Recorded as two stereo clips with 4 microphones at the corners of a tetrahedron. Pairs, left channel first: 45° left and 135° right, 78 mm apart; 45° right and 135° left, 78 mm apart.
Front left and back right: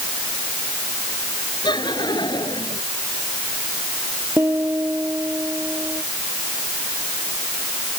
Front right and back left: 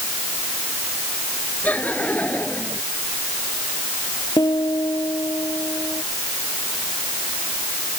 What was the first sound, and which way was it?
Laughter, 25° left.